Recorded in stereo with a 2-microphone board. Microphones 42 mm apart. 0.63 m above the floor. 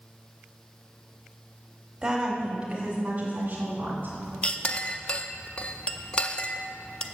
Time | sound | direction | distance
2.0 | a woman speaking | 25° right (ahead or behind) | 1.4 m
4.4 | a clink | 25° left (ahead or behind) | 0.5 m